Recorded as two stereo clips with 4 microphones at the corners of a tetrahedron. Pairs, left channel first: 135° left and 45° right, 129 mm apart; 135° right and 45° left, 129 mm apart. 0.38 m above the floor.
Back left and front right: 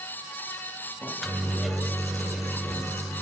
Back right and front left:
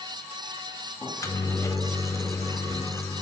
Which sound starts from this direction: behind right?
A microwave, at 1.0 s.